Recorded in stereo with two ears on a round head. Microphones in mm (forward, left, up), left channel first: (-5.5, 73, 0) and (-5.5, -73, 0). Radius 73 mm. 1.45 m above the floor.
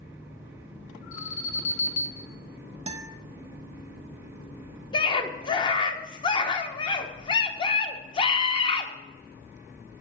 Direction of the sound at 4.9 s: 30° left (ahead or behind).